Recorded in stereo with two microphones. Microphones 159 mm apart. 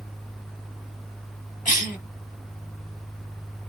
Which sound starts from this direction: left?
A cough, at 1.6 s.